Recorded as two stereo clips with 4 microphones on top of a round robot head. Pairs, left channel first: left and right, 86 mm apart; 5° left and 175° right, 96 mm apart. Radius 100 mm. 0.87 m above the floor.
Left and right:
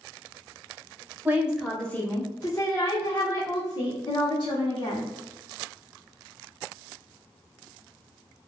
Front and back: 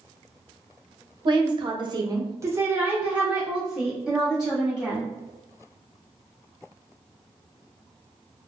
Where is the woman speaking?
155° right, 0.8 m; by 5.1 s 95° left, 2.5 m.